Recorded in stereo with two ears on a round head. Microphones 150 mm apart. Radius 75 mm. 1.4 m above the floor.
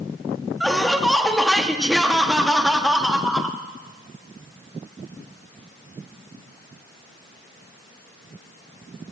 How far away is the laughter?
About 1.1 m.